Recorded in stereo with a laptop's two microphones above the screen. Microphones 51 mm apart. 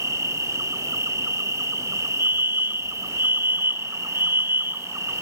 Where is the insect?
75° right (ahead or behind).